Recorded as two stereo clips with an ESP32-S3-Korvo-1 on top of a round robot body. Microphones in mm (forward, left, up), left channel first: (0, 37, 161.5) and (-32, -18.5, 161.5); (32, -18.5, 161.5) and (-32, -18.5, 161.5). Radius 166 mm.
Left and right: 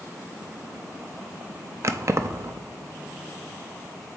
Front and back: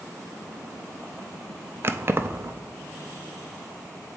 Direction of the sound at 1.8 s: 140° right.